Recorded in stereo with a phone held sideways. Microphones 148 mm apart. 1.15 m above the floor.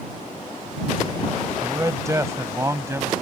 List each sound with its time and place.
1.6 s a man speaking: 20° right (ahead or behind)